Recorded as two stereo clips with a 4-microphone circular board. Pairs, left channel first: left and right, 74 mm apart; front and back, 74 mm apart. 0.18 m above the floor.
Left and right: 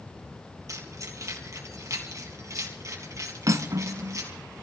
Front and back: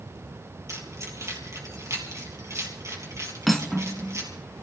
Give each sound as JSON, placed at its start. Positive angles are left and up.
{"t": 0.7, "sound": "keys jangling", "azimuth_deg": -135, "distance_m": 3.5}
{"t": 3.5, "sound": "cutlery clinking", "azimuth_deg": -90, "distance_m": 1.0}